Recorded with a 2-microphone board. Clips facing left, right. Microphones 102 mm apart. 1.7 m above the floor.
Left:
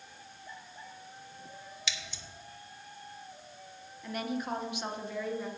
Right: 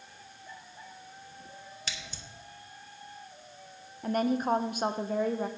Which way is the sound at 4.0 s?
45° right (ahead or behind).